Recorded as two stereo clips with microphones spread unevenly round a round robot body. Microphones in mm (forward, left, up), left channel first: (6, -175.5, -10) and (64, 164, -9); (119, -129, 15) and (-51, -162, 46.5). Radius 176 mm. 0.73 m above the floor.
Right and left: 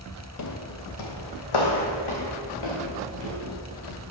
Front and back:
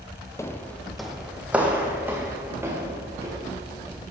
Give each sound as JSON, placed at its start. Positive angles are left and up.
{"t": 0.4, "sound": "footsteps", "azimuth_deg": -65, "distance_m": 1.4}